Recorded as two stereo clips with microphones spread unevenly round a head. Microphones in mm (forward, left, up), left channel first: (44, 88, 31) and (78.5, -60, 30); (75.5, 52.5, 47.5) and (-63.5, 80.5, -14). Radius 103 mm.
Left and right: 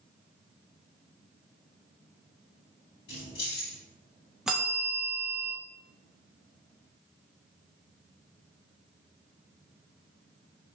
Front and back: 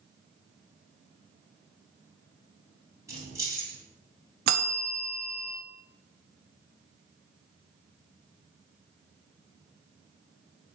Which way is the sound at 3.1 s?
95° left.